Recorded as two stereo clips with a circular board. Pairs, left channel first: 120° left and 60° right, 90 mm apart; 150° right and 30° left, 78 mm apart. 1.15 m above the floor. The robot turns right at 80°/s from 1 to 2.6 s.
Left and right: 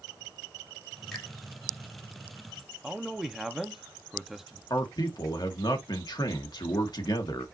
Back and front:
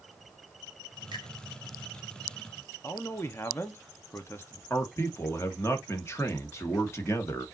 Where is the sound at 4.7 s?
155° left, 1.2 m.